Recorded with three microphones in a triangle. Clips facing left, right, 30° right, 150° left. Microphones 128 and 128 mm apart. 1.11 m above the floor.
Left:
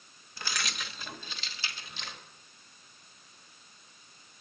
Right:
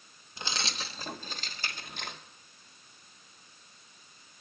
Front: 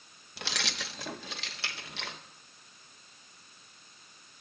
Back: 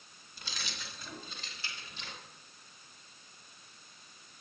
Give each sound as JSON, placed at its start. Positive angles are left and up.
{"t": 0.4, "sound": "keys jangling", "azimuth_deg": -20, "distance_m": 0.9}